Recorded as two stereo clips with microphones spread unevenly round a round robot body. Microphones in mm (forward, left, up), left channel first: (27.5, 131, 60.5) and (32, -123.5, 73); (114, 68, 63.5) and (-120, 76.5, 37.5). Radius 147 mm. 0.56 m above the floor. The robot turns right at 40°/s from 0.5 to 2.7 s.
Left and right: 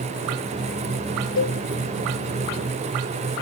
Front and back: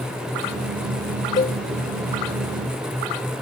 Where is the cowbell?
55° left; by 1.6 s 65° left.